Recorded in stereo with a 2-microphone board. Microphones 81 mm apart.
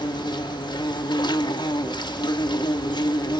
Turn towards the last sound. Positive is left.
turn(degrees=65)  # may be behind; listen again after turning